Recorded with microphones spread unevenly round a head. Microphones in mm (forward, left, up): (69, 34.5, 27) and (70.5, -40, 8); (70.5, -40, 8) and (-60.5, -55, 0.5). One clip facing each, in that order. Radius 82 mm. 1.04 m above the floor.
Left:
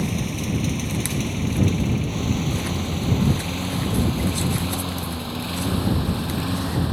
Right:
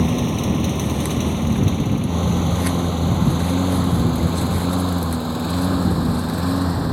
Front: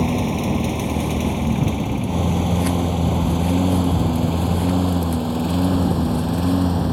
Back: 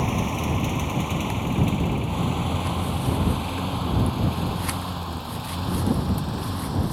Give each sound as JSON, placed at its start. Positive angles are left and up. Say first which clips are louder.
{"t": 0.0, "sound": "a lawn mower", "louder": "right 6 dB, front 5 dB", "azimuth_deg": -50}